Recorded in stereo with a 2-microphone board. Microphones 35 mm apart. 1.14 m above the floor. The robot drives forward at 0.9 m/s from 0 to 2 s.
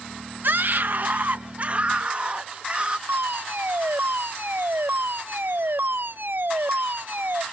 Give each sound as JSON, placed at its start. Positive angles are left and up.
{"t": 0.4, "sound": "a scream", "side_deg": -65}
{"t": 3.1, "sound": "a fire alarm", "side_deg": -70}